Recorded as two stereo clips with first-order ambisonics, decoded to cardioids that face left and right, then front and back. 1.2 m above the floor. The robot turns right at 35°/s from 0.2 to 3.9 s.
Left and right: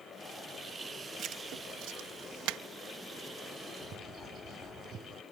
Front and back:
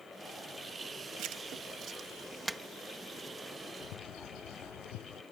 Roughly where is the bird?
Ahead right.